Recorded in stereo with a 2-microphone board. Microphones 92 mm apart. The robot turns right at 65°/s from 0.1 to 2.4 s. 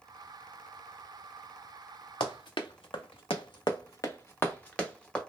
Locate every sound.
2.2 s running footsteps: 70° left (ahead or behind), 0.8 m; by 5.2 s 10° left (ahead or behind), 1.2 m